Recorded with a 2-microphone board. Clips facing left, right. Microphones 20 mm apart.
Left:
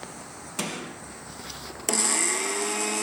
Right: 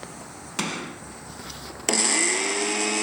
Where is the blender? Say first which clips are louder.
Right 3 dB; 25° right (ahead or behind), 0.5 m.